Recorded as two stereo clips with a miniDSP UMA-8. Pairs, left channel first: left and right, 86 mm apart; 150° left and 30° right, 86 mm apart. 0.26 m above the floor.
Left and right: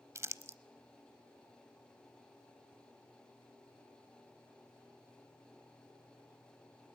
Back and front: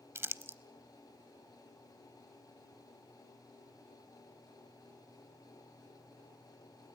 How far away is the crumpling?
About 0.6 m.